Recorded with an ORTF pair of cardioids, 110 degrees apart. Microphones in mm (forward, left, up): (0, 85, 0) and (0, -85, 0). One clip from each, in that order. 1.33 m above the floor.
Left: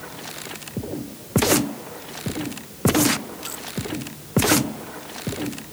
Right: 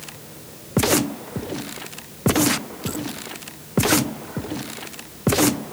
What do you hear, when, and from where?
Only background noise.